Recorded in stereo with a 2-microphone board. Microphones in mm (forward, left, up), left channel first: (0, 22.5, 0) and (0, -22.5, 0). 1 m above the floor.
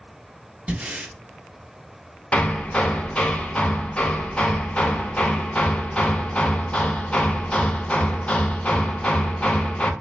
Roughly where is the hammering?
Left.